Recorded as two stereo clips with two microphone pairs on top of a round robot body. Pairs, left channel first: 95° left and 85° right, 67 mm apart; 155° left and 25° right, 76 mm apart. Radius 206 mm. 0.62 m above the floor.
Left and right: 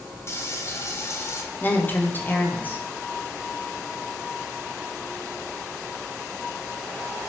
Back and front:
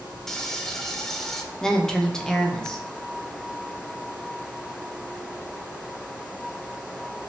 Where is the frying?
80° left, 1.0 m.